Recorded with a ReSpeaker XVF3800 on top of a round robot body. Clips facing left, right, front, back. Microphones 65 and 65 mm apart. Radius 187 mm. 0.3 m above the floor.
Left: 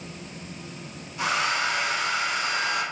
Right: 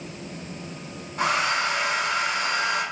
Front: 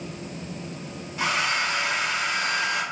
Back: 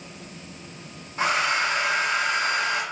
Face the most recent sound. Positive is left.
turn(degrees=-125)